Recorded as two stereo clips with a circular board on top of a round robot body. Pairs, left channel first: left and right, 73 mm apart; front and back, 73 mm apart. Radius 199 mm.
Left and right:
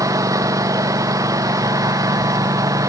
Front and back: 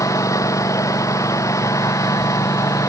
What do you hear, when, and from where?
0.0 s a lawn mower: 45° right; by 2.9 s 50° right